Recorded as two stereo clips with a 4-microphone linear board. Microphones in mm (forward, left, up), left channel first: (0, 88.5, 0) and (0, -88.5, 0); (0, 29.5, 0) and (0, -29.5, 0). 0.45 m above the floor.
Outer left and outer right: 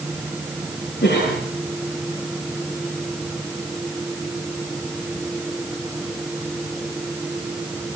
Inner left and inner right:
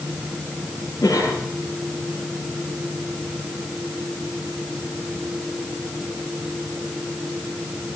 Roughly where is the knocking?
No knocking in this recording.